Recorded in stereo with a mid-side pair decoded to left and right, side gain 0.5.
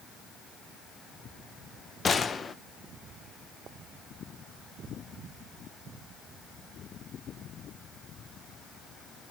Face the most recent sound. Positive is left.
turn(degrees=35)